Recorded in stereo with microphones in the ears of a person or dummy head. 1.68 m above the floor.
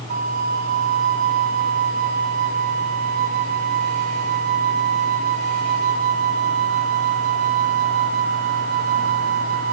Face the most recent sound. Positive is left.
turn(degrees=-50)  # may be behind; listen again after turning